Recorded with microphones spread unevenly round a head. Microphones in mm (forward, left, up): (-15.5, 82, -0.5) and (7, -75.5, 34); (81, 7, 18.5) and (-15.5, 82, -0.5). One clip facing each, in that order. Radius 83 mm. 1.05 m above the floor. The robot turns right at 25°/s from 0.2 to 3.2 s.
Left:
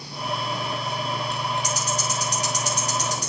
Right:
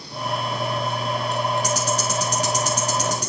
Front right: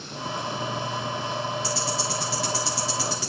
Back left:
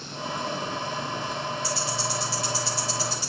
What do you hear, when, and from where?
1.6 s ticking: 105° right, 3 m; by 3.3 s 65° right, 3 m